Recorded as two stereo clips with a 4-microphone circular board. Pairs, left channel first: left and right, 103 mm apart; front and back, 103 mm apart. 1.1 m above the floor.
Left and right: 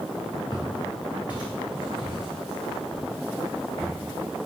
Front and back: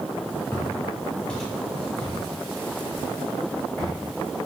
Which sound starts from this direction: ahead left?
Footsteps, at 0.5 s.